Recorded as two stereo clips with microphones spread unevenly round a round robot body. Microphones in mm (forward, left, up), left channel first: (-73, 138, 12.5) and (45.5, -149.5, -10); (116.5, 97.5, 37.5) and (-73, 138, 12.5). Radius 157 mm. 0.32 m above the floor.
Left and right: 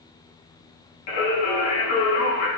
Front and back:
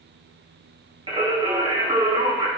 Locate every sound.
1.1 s singing: 105° left, 3.5 m